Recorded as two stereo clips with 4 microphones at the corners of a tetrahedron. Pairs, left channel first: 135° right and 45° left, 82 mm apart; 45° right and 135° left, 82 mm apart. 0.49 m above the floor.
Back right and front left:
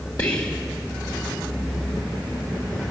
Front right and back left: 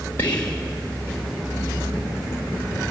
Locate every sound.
0.2 s whispering: 100° right, 1.5 m